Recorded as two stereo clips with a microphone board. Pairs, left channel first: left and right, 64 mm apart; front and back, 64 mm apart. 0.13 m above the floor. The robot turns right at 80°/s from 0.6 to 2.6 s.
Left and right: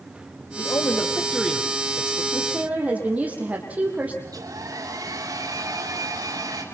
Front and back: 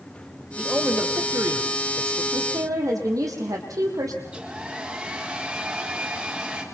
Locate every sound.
0.6 s a man speaking: 105° left, 4 m; by 2.2 s 125° right, 4 m
2.3 s a woman speaking: straight behind, 6.5 m; by 4.2 s 155° right, 6.5 m
4.2 s a hair dryer: 110° right, 7 m